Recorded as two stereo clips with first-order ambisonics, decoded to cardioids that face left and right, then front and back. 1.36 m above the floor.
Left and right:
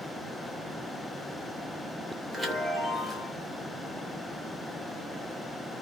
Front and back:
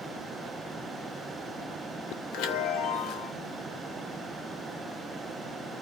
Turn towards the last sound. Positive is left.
turn(degrees=-15)